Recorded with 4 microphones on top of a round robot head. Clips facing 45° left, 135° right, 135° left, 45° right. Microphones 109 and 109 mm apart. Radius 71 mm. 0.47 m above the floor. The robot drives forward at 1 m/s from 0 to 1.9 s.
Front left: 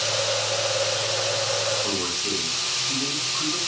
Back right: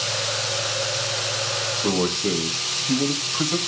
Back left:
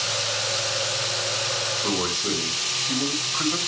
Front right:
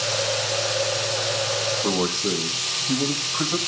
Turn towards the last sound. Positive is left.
turn(degrees=-115)